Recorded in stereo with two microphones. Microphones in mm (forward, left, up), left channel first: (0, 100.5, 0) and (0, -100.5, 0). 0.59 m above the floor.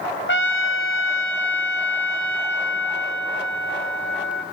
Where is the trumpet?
75° left (ahead or behind), 3.5 m.